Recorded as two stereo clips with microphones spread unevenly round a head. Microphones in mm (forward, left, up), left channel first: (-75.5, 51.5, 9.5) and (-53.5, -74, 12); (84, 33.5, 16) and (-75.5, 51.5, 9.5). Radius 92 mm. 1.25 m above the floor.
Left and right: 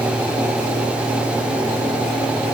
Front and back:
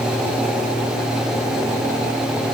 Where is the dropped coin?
No dropped coin in this recording.